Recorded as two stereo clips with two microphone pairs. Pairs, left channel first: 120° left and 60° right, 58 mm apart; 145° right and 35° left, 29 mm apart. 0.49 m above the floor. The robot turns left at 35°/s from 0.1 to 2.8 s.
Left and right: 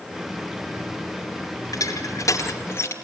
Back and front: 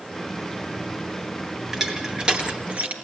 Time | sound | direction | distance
1.7 | crushing | 110° left | 4 m